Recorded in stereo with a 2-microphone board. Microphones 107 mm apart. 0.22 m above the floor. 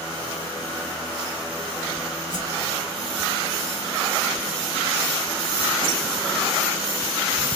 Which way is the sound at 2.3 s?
45° right (ahead or behind).